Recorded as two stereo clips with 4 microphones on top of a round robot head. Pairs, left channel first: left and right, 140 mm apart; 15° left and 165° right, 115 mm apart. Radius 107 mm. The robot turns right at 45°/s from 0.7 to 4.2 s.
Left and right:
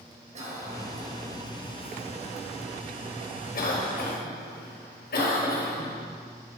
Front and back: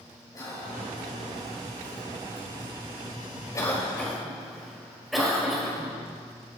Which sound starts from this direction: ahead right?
A cough, at 0.3 s.